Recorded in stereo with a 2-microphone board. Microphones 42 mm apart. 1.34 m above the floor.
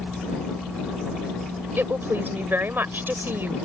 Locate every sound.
1.8 s a woman speaking: 55° right (ahead or behind)